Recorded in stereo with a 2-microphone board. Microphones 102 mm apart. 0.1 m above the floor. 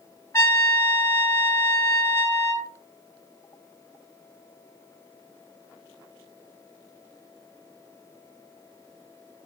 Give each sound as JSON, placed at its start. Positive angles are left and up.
{"t": 0.3, "sound": "a trumpet", "side_deg": 25, "distance_m": 2.0}